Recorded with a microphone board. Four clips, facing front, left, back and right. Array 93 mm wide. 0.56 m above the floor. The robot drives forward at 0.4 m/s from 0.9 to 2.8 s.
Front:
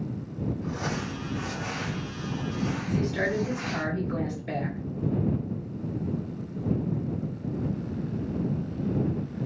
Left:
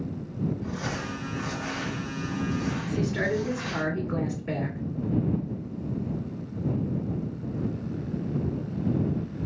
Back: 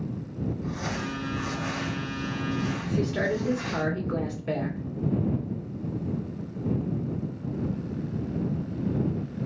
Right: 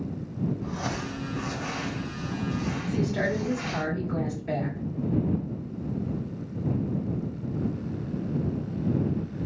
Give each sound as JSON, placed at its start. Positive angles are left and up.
{"t": 0.6, "sound": "crumpling", "azimuth_deg": -40, "distance_m": 1.8}
{"t": 2.8, "sound": "a woman speaking", "azimuth_deg": 165, "distance_m": 1.7}